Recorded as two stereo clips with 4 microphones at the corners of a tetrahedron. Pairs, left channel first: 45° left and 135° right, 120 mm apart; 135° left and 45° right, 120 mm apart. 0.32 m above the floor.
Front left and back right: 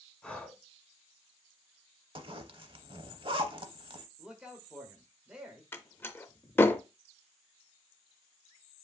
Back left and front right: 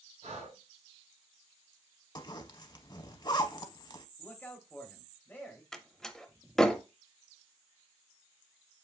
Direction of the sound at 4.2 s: 155° left.